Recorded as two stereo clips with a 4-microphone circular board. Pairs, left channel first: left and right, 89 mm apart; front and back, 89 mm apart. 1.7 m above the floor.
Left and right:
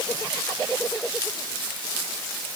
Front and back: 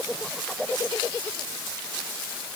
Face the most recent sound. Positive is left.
No sound to turn to.